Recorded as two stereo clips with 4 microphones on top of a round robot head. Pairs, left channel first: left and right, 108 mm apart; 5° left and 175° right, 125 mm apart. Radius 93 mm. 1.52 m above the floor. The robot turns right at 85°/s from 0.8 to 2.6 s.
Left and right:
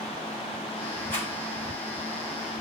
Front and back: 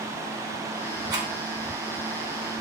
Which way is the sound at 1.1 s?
120° left.